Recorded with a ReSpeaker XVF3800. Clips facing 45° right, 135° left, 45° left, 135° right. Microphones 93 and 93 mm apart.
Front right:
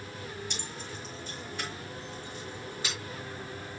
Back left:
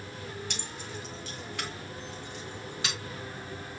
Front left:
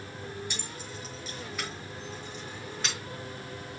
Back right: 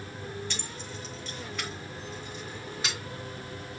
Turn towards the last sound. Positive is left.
turn(degrees=140)